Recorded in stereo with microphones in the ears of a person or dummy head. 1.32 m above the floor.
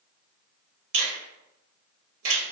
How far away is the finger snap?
About 0.6 m.